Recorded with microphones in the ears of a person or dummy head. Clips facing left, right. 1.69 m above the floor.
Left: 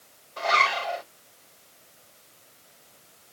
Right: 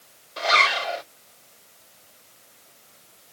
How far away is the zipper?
About 1.7 m.